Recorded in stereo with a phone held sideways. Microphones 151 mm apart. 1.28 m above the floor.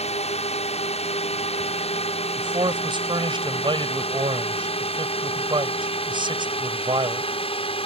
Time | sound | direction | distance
0.0 | a drone | 45° left (ahead or behind) | ?
2.4 | a man speaking | 30° right (ahead or behind) | ?